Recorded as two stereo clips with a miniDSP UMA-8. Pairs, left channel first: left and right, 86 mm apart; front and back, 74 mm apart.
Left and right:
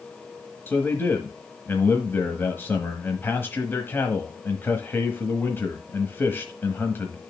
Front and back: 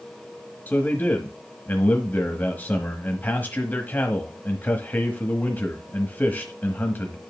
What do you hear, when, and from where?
0.7 s a man speaking: 45° left, 1.1 m